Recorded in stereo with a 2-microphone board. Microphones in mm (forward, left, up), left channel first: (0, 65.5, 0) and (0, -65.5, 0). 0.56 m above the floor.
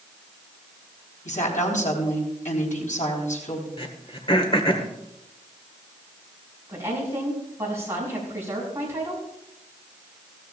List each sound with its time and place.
1.2 s a woman speaking: 70° left (ahead or behind), 3.5 m
3.8 s throat clearing: 45° left (ahead or behind), 1.5 m
6.7 s a woman speaking: 20° right (ahead or behind), 5.5 m